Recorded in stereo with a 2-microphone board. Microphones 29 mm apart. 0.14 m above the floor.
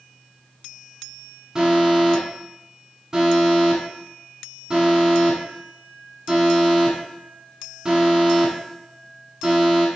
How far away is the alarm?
About 1.4 m.